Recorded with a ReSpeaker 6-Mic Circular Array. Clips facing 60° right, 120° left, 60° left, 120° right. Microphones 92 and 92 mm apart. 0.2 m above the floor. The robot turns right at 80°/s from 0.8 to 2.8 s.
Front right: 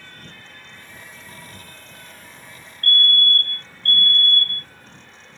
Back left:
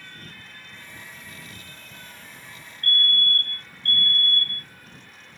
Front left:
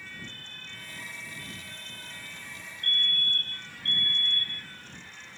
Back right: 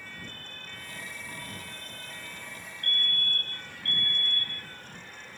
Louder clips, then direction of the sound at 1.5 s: Front right 2 dB, back right 2 dB; 155° right.